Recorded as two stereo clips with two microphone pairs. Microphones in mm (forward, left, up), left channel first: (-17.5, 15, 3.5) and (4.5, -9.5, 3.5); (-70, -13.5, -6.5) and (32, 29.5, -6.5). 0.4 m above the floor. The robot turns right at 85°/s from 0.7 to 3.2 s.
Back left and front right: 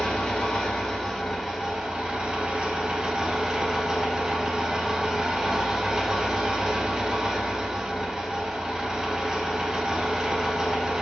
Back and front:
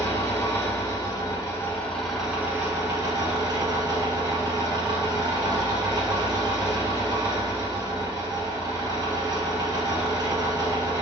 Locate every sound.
0.0 s an engine running: 170° left, 1.1 m; by 11.0 s 20° left, 1.1 m